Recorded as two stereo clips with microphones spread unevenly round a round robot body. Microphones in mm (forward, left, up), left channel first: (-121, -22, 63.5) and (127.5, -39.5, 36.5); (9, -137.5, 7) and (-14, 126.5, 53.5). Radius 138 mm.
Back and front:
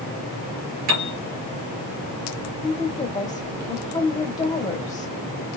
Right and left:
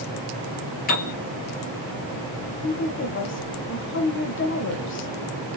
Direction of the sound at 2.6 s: 110° right.